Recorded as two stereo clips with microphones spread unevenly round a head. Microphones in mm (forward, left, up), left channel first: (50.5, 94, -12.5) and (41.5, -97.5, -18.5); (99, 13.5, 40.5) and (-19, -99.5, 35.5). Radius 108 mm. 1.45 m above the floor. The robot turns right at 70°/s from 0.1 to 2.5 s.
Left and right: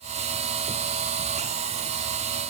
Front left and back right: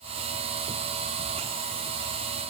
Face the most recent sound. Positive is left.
No sound to turn to.